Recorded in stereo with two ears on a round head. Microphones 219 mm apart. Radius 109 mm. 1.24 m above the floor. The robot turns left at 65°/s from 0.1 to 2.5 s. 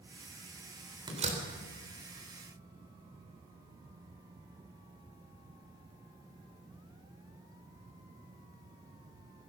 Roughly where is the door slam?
Centre.